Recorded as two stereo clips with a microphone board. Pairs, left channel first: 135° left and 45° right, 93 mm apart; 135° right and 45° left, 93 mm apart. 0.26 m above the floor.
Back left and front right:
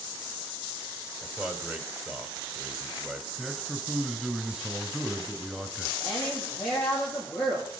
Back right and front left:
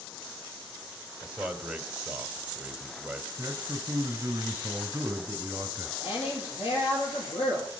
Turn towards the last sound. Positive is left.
turn(degrees=-135)